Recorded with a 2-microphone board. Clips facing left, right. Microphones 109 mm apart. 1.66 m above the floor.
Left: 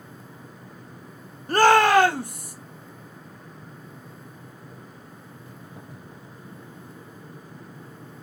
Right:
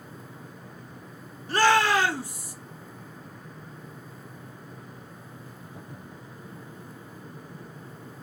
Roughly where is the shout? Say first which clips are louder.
Left 5 dB; left.